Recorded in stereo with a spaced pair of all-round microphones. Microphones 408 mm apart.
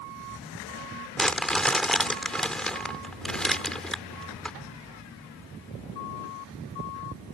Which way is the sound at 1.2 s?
Centre (ahead or behind).